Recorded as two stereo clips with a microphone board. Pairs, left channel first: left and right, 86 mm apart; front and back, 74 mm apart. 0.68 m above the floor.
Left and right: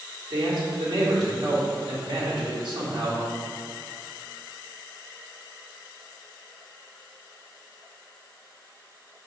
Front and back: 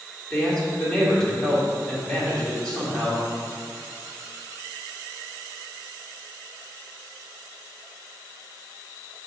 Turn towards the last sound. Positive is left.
turn(degrees=-75)